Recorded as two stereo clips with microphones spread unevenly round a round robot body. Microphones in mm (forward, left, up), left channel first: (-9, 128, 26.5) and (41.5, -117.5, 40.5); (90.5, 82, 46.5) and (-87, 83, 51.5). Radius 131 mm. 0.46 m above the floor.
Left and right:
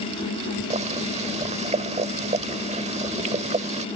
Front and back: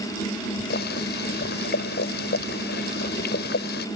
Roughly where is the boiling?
Ahead.